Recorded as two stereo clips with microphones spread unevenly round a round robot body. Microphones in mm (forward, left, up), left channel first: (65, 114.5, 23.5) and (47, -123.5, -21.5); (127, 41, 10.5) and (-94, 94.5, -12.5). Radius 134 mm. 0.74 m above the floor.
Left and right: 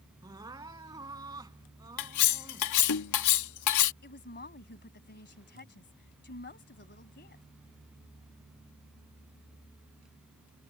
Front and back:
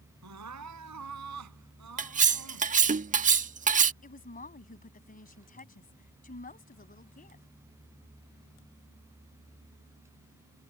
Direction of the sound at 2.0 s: 110° left.